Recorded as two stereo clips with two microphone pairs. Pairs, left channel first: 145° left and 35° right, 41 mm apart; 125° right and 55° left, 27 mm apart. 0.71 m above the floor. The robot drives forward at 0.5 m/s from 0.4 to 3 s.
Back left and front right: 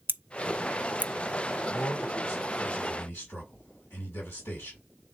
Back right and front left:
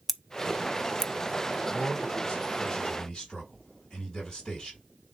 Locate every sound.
0.1 s scissors: 35° right, 0.9 m; by 1.1 s 60° right, 0.7 m
1.7 s a man speaking: 160° left, 4.5 m